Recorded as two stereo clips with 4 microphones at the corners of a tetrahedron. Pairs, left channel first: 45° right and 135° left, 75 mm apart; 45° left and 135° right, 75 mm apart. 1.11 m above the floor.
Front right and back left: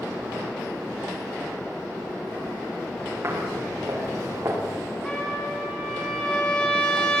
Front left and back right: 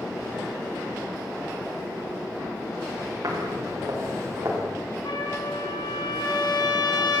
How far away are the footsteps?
About 9 m.